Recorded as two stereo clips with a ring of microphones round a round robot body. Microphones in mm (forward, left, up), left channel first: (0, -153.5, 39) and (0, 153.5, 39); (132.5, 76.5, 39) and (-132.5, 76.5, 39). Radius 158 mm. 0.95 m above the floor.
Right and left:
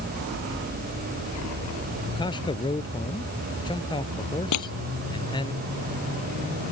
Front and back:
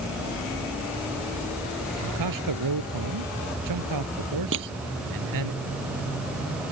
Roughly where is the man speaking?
Behind.